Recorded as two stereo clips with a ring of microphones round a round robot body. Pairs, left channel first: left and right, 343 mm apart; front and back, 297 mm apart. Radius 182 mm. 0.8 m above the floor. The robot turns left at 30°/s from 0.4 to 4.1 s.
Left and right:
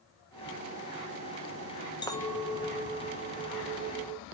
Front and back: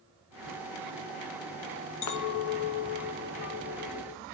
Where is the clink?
15° left, 0.7 m; by 4.2 s 50° right, 0.7 m.